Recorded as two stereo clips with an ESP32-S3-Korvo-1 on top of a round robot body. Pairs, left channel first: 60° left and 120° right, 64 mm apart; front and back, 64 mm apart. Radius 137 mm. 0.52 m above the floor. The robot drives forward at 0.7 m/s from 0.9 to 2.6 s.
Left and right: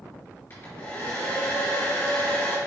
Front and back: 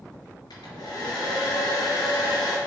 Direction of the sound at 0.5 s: 5° right.